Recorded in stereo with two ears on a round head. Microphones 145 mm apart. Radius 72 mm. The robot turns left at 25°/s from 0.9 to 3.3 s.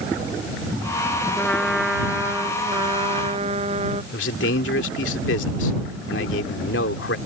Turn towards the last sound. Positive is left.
turn(degrees=85)